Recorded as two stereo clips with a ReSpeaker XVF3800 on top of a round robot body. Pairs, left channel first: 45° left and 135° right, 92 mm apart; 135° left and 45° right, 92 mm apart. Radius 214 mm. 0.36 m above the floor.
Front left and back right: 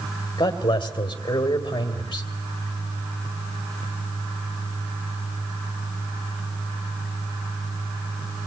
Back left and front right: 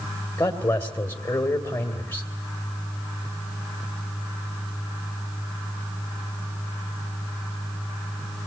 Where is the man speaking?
85° left, 2.5 m.